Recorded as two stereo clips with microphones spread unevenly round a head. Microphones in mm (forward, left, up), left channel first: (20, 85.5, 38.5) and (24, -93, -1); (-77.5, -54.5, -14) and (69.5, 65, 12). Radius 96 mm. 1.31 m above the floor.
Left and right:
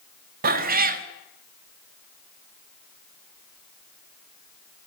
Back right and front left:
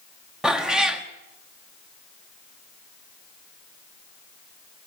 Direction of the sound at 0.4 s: 45° right.